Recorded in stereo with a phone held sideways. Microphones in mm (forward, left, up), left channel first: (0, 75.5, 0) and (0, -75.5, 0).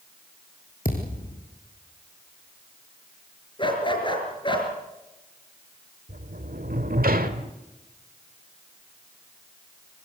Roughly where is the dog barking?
Left.